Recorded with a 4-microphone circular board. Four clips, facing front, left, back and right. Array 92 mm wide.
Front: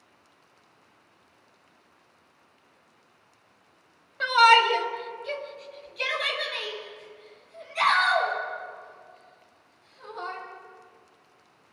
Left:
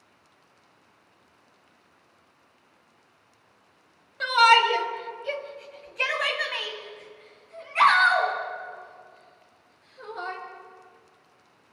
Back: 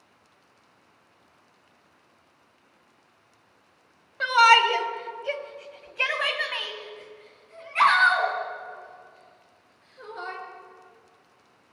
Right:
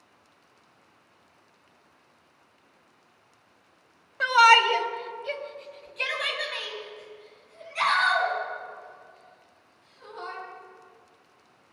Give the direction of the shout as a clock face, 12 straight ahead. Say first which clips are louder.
Right 1 dB, even; 3 o'clock.